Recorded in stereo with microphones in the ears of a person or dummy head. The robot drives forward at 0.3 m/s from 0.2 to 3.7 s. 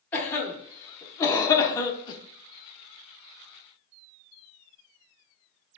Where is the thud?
I don't hear a thud.